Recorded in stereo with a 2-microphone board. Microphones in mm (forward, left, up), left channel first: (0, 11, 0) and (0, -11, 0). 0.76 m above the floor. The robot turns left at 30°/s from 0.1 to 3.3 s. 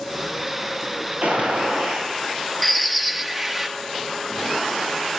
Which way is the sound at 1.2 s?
80° right.